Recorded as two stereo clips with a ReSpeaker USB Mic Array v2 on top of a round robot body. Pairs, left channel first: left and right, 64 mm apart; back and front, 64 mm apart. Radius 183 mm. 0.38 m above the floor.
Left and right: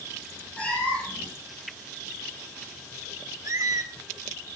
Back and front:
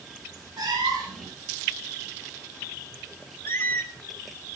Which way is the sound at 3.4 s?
120° right.